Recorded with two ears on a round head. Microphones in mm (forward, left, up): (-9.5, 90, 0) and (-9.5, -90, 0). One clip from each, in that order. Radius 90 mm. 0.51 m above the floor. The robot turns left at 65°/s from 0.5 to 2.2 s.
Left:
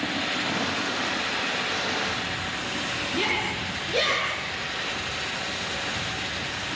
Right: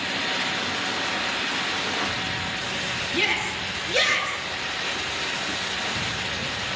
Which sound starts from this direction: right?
A shout, at 3.1 s.